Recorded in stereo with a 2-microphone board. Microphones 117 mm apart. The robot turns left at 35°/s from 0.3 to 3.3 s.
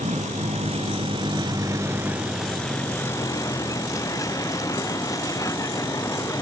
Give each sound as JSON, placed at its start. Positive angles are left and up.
{"t": 0.0, "sound": "a vehicle", "azimuth_deg": -105}